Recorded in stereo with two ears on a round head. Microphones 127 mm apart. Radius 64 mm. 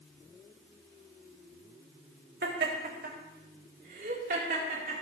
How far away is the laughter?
About 4 m.